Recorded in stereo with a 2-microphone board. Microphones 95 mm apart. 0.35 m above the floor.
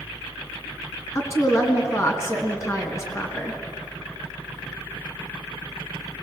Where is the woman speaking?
30° left (ahead or behind), 3.5 m.